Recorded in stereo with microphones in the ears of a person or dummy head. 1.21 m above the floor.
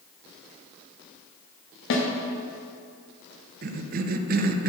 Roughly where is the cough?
Right.